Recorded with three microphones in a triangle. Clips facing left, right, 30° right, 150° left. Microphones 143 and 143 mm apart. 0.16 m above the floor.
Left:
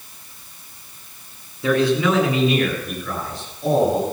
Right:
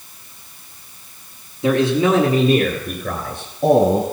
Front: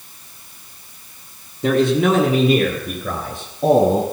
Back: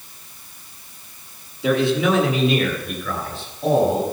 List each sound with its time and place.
1.6 s a man speaking: 30° right, 2 m; by 4.0 s 70° right, 3 m